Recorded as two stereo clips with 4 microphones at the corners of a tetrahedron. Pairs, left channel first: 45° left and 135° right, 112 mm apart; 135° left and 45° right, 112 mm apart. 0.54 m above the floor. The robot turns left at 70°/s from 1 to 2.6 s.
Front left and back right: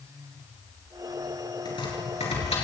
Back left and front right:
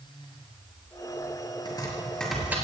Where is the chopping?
90° left, 5 m; by 2.5 s 30° left, 5 m.